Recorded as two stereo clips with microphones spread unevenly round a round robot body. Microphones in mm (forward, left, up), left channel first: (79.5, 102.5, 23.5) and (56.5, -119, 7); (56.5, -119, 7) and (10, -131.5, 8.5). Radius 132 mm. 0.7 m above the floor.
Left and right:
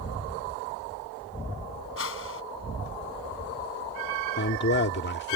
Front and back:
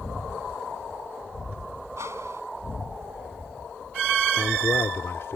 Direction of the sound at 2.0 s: 130° left.